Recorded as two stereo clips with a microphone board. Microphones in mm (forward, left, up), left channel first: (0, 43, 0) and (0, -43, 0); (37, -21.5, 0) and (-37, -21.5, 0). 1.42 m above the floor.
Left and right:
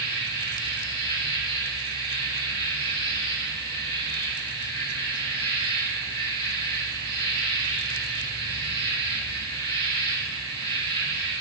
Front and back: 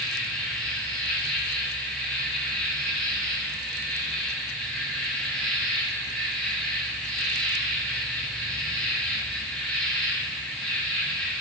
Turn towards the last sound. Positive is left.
turn(degrees=75)